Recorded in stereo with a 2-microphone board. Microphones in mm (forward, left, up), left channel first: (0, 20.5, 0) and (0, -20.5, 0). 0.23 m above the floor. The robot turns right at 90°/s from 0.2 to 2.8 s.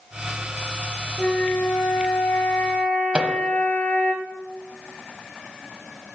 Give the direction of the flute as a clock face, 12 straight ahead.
12 o'clock.